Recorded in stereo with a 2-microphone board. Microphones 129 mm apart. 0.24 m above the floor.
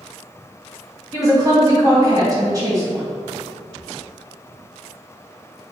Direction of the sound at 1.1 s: 30° right (ahead or behind).